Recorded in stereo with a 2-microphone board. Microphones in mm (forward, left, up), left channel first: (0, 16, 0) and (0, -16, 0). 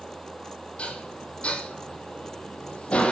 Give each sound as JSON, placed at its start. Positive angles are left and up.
{"t": 0.8, "sound": "dishes clattering", "side_deg": 40, "distance_m": 3.5}